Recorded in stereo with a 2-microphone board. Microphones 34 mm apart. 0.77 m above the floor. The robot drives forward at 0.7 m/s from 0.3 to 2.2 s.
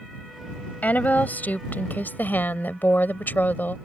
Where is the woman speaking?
55° left (ahead or behind); by 3.8 s 70° left (ahead or behind).